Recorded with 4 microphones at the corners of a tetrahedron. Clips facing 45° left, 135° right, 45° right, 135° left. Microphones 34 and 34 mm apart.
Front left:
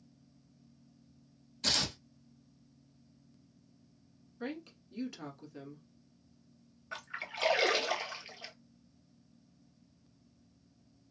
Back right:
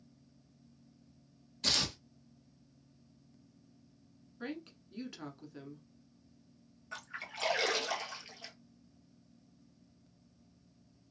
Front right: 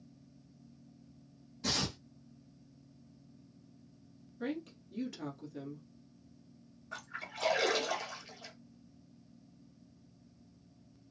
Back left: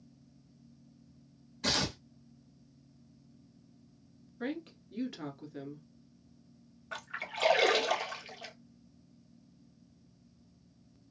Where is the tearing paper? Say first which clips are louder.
Even, back left 3 dB; 140° left, 1.0 m.